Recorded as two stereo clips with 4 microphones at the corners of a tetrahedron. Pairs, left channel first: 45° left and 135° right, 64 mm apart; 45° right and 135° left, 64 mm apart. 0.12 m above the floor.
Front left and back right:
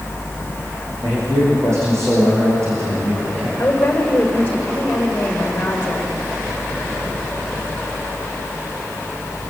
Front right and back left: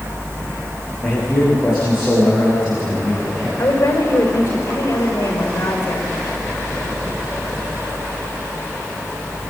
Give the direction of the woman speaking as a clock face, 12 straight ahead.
1 o'clock.